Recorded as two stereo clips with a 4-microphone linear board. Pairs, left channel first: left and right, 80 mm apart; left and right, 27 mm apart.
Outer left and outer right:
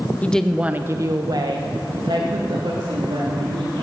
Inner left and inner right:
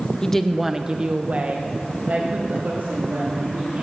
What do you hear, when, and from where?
0.2 s a woman speaking: 20° left (ahead or behind), 0.8 m; by 3.8 s 80° right, 3.5 m